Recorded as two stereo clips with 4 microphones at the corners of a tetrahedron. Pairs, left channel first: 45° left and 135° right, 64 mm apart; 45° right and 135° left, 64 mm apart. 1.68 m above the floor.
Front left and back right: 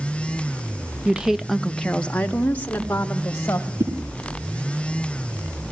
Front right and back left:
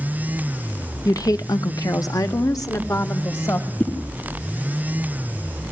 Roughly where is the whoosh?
Right.